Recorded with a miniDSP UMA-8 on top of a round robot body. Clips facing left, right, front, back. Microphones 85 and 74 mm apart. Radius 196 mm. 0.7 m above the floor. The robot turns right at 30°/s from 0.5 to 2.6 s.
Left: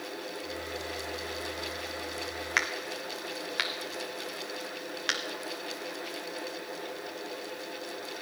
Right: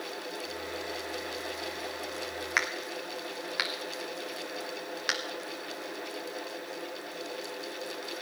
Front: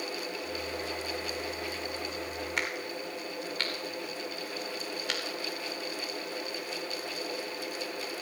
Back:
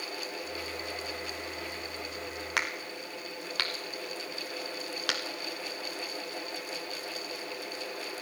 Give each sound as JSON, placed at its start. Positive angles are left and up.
{"t": 2.6, "sound": "a crack", "azimuth_deg": -175, "distance_m": 0.7}